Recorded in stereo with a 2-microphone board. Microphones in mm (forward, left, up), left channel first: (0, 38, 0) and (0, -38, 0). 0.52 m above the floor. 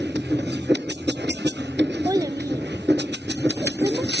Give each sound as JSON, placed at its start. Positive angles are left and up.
{"t": 2.0, "sound": "a child speaking", "side_deg": -55, "distance_m": 0.5}